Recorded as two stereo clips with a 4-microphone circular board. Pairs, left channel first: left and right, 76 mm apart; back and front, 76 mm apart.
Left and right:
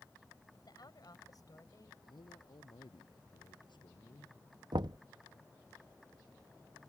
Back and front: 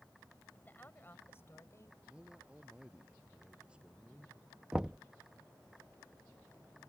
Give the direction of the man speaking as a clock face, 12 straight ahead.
9 o'clock.